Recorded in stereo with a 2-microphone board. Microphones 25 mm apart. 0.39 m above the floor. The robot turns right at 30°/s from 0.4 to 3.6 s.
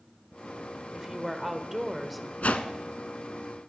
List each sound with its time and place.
0.9 s a woman speaking: 40° right, 1.0 m; by 2.3 s straight ahead, 1.0 m
2.4 s a whoosh: 80° left, 0.8 m